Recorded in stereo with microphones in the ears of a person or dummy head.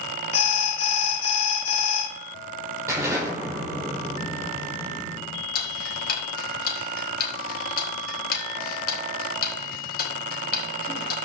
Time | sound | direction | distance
0.3 | an alarm | 85° left | 2.5 m
2.9 | an explosion | 10° right (ahead or behind) | 5 m
5.5 | ticking | 55° left (ahead or behind) | 3.5 m